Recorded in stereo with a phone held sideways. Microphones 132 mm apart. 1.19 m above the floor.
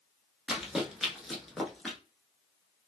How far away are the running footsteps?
About 1.2 m.